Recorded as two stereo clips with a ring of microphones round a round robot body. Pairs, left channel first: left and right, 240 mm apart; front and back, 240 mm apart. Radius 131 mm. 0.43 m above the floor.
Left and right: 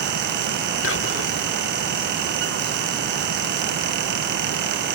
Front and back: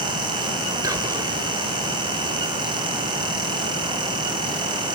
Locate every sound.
0.8 s whispering: 105° left, 1.3 m